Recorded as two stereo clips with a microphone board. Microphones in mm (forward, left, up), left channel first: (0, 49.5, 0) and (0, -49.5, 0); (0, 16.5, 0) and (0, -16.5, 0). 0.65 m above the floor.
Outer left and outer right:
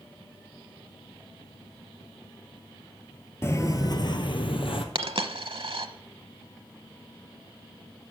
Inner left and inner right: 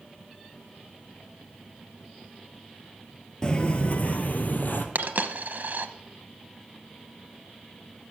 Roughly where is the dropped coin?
Right.